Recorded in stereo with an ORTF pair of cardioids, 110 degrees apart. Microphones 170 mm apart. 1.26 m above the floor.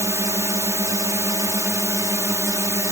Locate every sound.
0.0 s a drone: 15° right